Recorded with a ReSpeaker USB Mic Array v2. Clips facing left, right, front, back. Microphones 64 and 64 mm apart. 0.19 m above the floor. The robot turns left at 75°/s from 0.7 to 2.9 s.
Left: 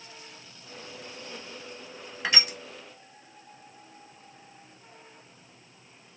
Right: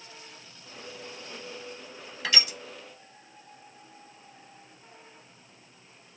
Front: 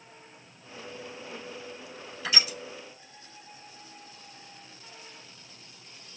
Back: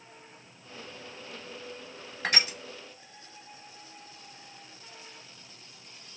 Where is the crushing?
155° left, 1.0 m; by 2.6 s 130° left, 1.0 m.